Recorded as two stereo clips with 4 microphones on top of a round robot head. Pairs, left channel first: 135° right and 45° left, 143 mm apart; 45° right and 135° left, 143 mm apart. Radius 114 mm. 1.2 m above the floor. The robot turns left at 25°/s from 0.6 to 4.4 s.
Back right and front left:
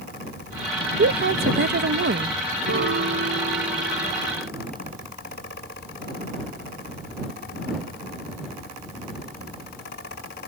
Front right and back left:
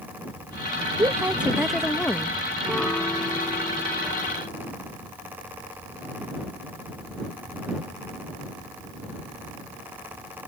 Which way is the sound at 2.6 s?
45° left.